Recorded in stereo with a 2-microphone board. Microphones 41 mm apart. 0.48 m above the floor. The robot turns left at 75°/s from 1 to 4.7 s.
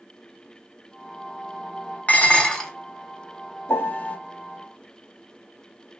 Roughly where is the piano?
Left.